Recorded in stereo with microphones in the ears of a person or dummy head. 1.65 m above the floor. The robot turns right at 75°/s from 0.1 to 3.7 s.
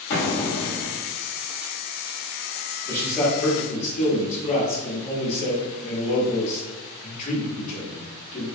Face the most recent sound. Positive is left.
turn(degrees=45)